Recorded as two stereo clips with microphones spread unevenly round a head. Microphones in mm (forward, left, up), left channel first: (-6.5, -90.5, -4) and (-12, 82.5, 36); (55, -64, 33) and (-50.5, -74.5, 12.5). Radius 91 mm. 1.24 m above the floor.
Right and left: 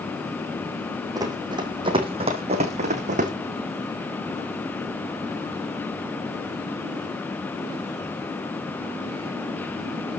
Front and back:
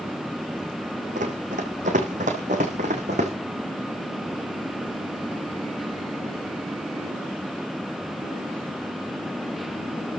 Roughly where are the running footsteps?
Behind left.